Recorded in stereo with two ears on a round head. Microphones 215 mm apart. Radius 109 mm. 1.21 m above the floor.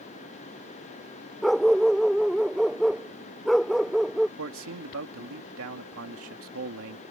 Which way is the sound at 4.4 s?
60° right (ahead or behind).